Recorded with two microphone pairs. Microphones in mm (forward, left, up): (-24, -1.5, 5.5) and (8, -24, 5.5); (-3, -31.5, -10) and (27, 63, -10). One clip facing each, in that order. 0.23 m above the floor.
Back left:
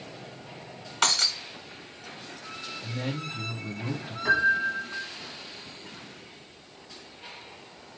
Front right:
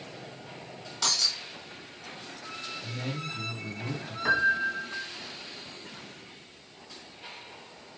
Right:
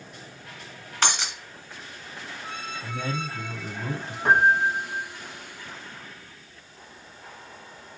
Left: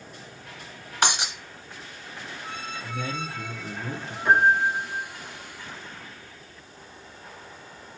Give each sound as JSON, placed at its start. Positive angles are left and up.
{"t": 1.0, "sound": "breaking glass", "azimuth_deg": 145, "distance_m": 1.5}
{"t": 2.8, "sound": "a man speaking", "azimuth_deg": -150, "distance_m": 3.0}
{"t": 4.2, "sound": "a piano", "azimuth_deg": -105, "distance_m": 3.0}